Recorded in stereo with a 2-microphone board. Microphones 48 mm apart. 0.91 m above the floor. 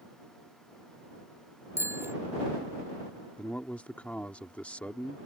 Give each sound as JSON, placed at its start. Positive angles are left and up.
{"t": 1.8, "sound": "a bicycle bell", "side_deg": -65}
{"t": 3.4, "sound": "a man speaking", "side_deg": 30}